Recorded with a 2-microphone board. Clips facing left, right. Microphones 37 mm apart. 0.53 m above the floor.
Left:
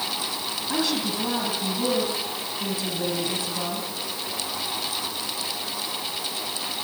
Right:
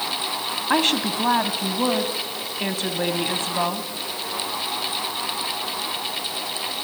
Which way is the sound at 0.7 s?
55° right (ahead or behind).